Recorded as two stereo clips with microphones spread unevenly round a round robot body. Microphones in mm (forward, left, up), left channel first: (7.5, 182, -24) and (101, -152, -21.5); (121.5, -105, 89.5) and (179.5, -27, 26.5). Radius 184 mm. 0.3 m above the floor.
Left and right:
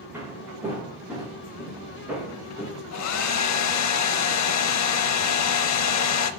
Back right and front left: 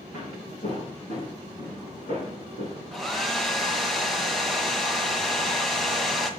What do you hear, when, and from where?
0.1 s footsteps: 160° right, 2.5 m; by 2.7 s 165° right, 4 m
2.9 s a hair dryer: 100° left, 0.7 m